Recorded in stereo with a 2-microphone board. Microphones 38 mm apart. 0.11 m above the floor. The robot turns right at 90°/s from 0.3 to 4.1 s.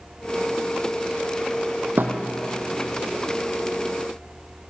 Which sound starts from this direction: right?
A thud, at 2.0 s.